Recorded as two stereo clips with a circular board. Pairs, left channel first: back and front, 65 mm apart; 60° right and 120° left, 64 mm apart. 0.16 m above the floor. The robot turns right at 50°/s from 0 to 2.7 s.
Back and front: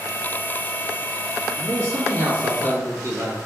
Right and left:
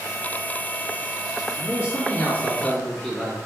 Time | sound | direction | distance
1.6 | a man speaking | 35° right | 3 m